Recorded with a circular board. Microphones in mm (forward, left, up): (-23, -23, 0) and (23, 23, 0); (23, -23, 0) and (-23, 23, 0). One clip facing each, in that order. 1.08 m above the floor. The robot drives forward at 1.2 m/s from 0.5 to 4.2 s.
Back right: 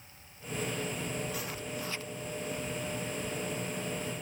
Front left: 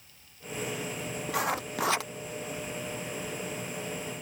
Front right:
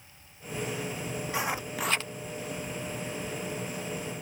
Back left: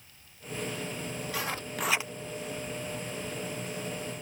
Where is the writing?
25° left; by 2.1 s 70° left.